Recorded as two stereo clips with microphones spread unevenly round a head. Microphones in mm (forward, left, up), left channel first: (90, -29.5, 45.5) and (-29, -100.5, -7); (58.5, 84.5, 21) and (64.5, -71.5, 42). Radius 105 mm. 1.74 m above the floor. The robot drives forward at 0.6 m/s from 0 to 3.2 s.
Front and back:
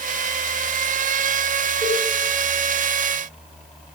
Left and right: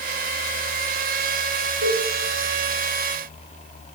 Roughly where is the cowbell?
Right.